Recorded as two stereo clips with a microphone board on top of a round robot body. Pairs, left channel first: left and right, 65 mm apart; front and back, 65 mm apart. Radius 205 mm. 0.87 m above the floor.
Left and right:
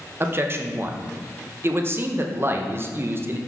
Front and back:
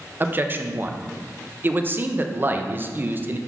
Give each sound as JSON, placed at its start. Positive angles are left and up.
{"t": 0.2, "sound": "a man speaking", "azimuth_deg": -130, "distance_m": 0.6}